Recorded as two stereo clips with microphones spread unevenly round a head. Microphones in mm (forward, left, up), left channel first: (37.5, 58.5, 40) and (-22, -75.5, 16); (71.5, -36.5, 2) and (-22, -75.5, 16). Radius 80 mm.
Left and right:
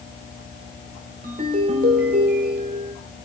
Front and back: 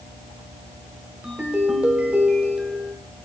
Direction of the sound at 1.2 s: 80° right.